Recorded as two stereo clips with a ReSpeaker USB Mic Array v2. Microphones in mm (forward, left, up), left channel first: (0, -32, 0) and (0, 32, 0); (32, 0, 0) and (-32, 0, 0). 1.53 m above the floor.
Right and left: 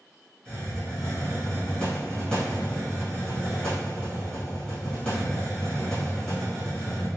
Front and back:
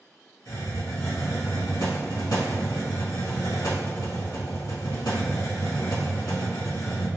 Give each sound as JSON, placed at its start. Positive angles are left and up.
{"t": 0.5, "sound": "a hiss", "azimuth_deg": -10, "distance_m": 1.8}